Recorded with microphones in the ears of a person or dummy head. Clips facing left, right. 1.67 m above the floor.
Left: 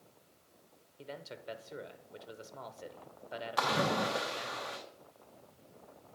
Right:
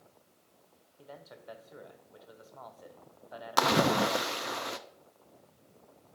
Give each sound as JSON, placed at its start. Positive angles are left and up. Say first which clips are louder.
{"t": 1.0, "sound": "a man speaking", "louder": "left 4 dB", "side_deg": 40, "distance_m": 1.0}
{"t": 3.6, "sound": "a splash", "louder": "right 6 dB", "side_deg": -60, "distance_m": 0.5}